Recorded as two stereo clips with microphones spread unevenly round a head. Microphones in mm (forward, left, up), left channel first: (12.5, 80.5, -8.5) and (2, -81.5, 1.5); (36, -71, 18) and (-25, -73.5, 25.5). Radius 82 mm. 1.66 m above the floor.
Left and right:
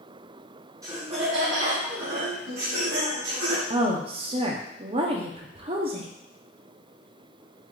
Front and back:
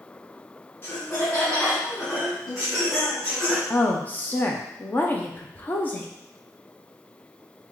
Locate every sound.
0.8 s laughter: 40° right, 0.7 m; by 3.6 s 70° right, 2.5 m
3.7 s a woman speaking: 55° right, 0.6 m